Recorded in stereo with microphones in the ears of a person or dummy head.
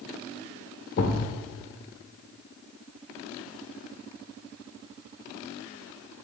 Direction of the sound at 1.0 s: 35° left (ahead or behind).